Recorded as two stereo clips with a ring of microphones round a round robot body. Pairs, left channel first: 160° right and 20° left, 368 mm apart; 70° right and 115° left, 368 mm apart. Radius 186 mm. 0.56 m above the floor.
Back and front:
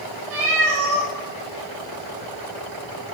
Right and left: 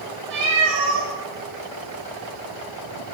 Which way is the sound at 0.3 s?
65° left.